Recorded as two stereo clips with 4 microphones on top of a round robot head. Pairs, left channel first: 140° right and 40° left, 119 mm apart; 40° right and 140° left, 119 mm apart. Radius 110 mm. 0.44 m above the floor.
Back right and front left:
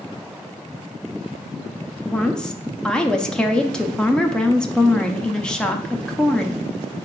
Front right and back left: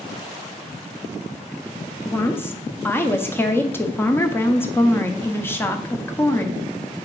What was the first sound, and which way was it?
A woman speaking, 70° right.